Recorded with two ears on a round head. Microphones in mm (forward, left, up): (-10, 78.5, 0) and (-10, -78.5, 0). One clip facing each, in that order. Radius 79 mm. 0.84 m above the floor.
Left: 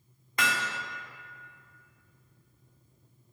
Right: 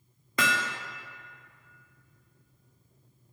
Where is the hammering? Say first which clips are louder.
Right 2 dB; 70° right (ahead or behind), 0.9 m.